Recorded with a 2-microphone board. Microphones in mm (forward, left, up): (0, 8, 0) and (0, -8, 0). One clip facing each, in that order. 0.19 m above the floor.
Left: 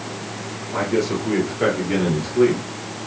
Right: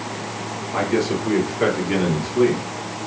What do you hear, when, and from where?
0.7 s a man speaking: 15° right (ahead or behind), 3 m; by 3.1 s 5° left (ahead or behind), 3.5 m